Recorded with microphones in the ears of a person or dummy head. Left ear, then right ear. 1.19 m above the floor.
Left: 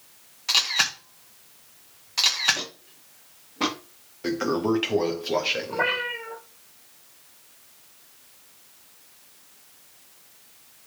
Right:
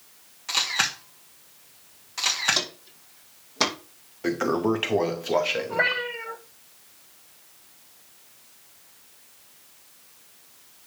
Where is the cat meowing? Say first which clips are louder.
Right 2 dB; 50° right (ahead or behind), 6.5 m.